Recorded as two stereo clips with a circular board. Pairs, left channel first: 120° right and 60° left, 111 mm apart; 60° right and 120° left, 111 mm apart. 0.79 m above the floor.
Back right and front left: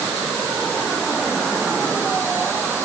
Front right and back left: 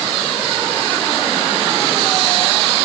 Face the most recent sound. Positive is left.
No sound to turn to.